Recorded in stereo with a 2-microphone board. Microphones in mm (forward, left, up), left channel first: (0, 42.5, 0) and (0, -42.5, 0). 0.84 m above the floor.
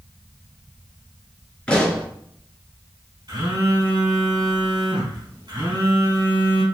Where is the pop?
10° left (ahead or behind), 3 m.